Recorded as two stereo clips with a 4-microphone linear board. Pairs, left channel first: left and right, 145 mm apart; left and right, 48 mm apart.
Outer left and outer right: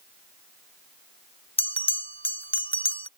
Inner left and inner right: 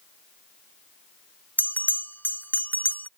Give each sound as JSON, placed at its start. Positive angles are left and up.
{"t": 1.6, "sound": "a bell", "side_deg": 40}